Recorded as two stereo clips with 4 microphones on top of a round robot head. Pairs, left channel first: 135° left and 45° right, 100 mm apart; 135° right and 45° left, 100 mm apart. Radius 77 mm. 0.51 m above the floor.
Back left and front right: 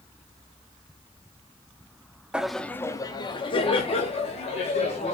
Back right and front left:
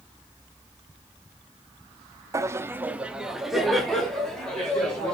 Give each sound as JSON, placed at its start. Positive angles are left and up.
{"t": 2.3, "sound": "laughter", "azimuth_deg": 30, "distance_m": 0.7}